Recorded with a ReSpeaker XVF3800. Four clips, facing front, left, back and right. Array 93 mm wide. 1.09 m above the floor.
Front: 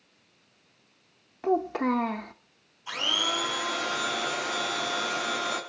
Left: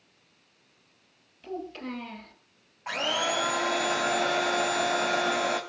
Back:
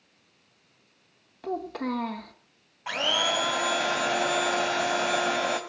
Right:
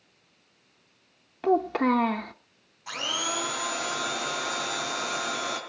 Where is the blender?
145° left, 3.5 m.